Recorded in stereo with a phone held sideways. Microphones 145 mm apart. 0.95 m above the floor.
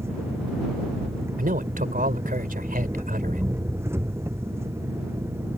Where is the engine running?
20° right (ahead or behind).